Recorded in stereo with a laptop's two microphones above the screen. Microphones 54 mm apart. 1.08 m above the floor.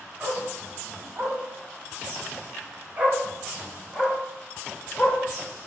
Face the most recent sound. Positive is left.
turn(degrees=15)  # may be behind; listen again after turning